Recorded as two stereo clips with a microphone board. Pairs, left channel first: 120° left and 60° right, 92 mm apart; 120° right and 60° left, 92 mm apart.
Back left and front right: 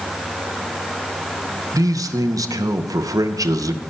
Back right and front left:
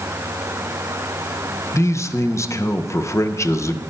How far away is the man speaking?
About 0.6 m.